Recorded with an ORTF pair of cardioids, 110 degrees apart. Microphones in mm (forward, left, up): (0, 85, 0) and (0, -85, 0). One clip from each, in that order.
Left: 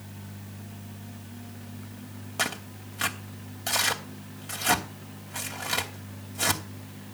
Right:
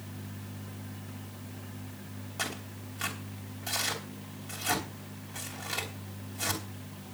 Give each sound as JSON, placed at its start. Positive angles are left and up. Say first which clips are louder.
{"t": 2.4, "sound": "tearing paper", "louder": "left 6 dB", "azimuth_deg": 35, "distance_m": 2.5}